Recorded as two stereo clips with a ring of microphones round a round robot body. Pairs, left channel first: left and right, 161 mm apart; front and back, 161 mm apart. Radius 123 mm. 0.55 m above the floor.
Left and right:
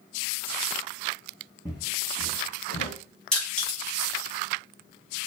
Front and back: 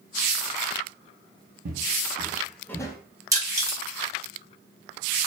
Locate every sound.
1.6 s footsteps: 165° left, 1.1 m; by 3.0 s 60° left, 1.0 m
3.3 s crushing: 165° left, 1.1 m